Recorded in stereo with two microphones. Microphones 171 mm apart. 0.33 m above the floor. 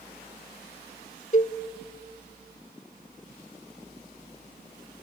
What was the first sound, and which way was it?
A cowbell, 45° left (ahead or behind).